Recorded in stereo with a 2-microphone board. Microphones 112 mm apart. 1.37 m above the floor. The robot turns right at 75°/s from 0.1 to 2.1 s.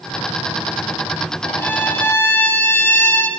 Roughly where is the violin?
Centre.